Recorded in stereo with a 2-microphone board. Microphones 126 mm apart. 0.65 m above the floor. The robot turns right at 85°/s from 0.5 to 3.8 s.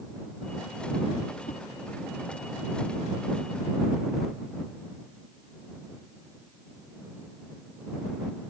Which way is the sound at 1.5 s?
75° left (ahead or behind).